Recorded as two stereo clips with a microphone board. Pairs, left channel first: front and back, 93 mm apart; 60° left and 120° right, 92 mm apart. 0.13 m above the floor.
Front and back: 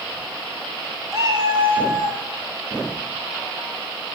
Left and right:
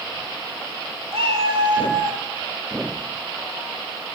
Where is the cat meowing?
125° right, 1.4 m; by 2.2 s 165° right, 2.5 m.